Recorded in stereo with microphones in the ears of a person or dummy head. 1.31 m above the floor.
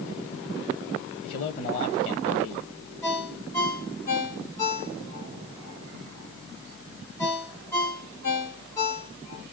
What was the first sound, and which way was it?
A man speaking, 50° left (ahead or behind).